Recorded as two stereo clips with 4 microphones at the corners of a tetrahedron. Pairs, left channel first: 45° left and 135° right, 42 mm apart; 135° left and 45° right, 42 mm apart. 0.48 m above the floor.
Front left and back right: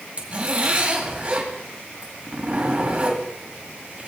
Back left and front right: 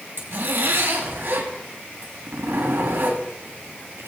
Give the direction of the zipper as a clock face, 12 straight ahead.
3 o'clock.